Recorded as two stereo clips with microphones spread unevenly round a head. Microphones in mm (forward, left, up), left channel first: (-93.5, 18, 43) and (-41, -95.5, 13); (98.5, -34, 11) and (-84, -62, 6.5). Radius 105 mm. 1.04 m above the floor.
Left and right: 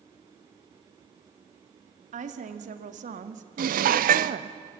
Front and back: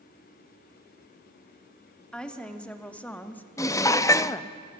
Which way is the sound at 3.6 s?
65° right.